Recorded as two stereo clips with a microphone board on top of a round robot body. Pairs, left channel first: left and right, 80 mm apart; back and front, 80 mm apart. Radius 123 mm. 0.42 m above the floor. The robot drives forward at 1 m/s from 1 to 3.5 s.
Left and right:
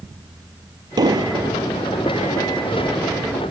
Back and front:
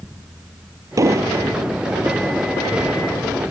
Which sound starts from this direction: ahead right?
An explosion, at 1.0 s.